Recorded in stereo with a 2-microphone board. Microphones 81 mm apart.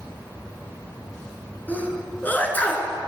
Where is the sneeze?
20° left (ahead or behind), 1.8 m.